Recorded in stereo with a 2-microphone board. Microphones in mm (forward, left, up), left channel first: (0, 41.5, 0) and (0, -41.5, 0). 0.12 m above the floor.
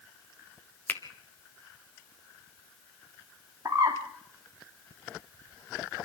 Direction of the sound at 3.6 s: 40° right (ahead or behind).